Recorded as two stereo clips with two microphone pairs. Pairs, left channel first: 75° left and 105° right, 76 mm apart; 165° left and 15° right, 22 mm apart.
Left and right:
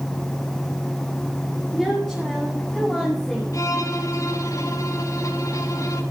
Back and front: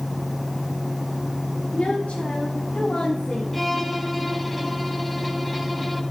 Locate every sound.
1.7 s a woman speaking: 165° left, 7 m; by 3.4 s 160° left, 6 m
3.5 s a violin: 80° left, 2.5 m